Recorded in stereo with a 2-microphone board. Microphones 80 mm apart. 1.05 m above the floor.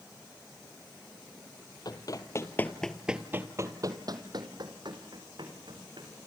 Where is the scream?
I don't hear a scream.